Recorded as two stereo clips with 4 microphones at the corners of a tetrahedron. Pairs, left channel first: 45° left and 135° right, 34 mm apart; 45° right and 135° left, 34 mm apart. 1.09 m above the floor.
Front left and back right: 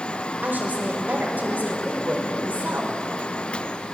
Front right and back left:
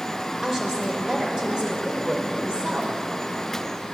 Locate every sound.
0.4 s a woman speaking: 145° right, 4.5 m; by 2.9 s 165° right, 4 m